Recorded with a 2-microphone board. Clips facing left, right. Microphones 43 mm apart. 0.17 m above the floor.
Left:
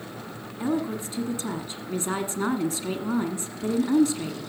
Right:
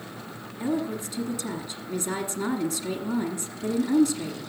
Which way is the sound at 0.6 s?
35° left (ahead or behind).